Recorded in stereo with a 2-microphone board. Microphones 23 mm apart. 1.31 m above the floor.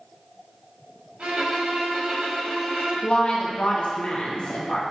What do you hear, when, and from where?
1.2 s a violin: 75° right (ahead or behind), 1.7 m
3.0 s a woman speaking: 50° left (ahead or behind), 0.8 m